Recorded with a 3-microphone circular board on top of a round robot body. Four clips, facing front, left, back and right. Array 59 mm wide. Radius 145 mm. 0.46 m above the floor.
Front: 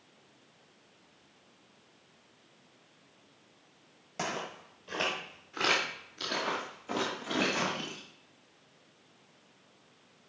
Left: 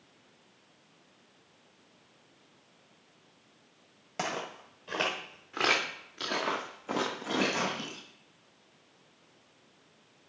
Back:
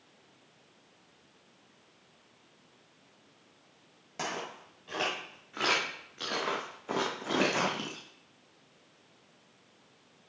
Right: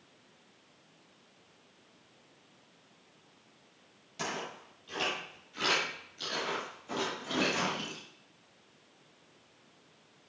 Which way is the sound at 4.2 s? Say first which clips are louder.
Left 3 dB, front 1 dB; 95° left.